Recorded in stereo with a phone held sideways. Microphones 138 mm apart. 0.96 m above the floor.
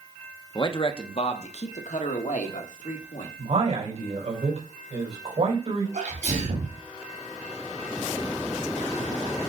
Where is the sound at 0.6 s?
30° left (ahead or behind), 0.8 m; by 3.3 s 65° left (ahead or behind), 2 m.